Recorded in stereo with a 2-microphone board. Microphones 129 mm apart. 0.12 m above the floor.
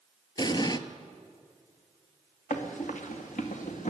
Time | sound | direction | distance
0.4 | an explosion | 35° left (ahead or behind) | 0.6 m
2.5 | running footsteps | 80° left | 2.5 m